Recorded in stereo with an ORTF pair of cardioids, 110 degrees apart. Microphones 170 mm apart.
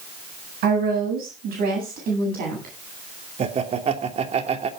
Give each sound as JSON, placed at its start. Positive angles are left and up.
{"t": 0.6, "sound": "a woman speaking", "azimuth_deg": -65, "distance_m": 8.0}
{"t": 3.4, "sound": "laughter", "azimuth_deg": -40, "distance_m": 3.0}